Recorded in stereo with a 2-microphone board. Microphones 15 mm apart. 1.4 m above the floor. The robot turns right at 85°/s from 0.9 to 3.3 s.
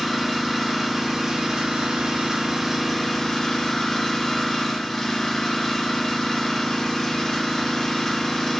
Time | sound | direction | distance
0.0 | an engine running | 170° right | 2.5 m